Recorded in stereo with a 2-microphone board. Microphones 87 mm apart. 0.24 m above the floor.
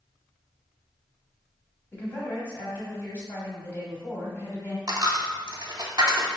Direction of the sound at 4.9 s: 50° right (ahead or behind).